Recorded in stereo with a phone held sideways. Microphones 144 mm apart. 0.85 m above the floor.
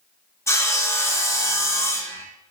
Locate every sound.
0.5 s sawing: 20° left (ahead or behind), 0.6 m